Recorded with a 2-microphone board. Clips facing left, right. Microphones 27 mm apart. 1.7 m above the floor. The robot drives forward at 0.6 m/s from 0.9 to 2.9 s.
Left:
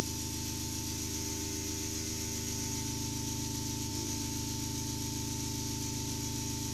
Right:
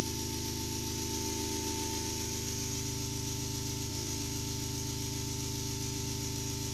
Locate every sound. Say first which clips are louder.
0.0 s an engine running: right 1 dB; 35° right (ahead or behind), 0.7 m; by 6.8 s 25° right (ahead or behind), 0.9 m